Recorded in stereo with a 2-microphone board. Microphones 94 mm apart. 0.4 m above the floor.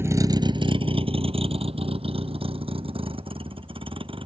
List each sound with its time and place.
0.0 s a vehicle: 25° right (ahead or behind); by 4.3 s 65° right (ahead or behind)